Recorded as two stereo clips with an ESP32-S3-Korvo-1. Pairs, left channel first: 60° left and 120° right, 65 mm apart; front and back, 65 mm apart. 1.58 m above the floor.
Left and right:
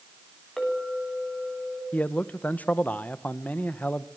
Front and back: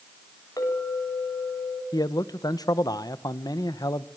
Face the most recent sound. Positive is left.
turn(degrees=-5)